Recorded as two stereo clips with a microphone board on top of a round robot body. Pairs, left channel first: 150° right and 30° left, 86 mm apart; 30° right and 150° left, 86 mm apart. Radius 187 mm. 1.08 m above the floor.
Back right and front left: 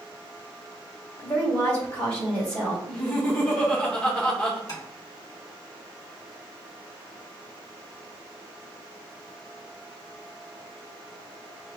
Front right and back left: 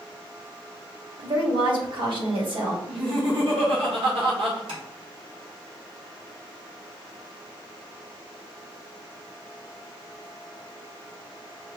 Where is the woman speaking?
135° left, 1.8 m.